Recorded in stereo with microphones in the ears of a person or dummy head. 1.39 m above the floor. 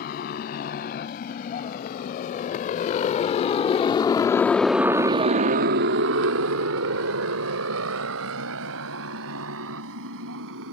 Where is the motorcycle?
55° left (ahead or behind); by 10.7 s 65° right (ahead or behind).